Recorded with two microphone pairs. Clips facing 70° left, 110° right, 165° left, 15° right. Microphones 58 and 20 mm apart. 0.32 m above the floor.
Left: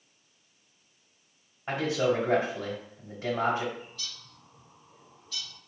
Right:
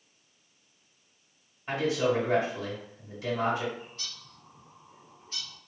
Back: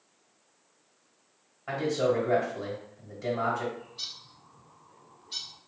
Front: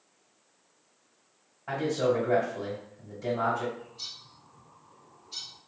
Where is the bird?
160° right, 0.7 m.